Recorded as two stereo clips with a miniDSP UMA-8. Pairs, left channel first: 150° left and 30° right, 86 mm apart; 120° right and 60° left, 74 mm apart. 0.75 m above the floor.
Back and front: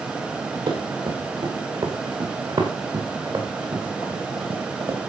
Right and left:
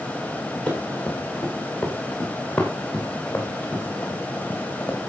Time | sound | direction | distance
0.7 | running footsteps | 40° right | 7 m